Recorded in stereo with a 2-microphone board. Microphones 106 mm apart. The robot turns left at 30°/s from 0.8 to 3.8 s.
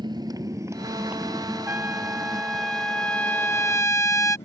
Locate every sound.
0.0 s a motorcycle: 45° right (ahead or behind); by 4.5 s 85° left
1.7 s a trumpet: 150° right; by 4.4 s 145° left